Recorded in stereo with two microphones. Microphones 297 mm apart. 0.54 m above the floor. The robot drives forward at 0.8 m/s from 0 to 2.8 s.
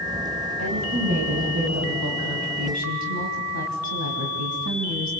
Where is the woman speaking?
65° right (ahead or behind), 4 m; by 5.1 s 75° right (ahead or behind), 3.5 m.